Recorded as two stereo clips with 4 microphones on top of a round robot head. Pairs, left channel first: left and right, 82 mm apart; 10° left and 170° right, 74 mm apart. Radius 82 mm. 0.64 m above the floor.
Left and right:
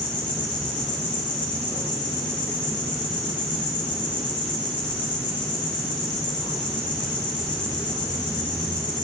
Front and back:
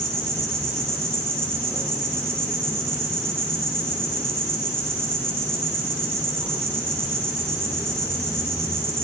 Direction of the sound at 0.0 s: 130° left.